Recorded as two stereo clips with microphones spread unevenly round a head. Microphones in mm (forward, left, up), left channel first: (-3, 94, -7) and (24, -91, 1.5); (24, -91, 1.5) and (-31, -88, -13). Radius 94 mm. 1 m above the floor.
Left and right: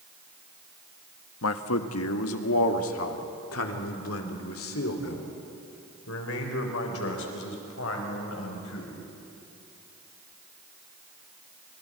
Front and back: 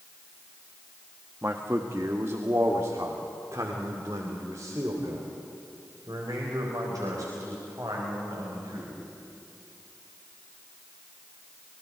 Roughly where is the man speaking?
Left.